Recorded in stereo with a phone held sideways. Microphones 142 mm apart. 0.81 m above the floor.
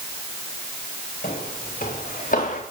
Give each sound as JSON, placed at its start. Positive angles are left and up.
{"t": 1.2, "sound": "footsteps", "side_deg": 80, "distance_m": 4.0}